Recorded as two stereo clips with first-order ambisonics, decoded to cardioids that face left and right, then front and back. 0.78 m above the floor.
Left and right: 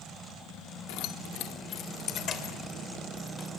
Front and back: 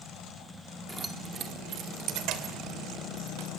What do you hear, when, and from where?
0.9 s keys jangling: 95° left, 1.4 m; by 3.5 s 160° left, 4 m